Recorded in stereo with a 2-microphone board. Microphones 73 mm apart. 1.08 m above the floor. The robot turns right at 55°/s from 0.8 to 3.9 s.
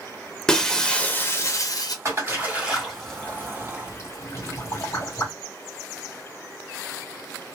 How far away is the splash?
About 1.7 m.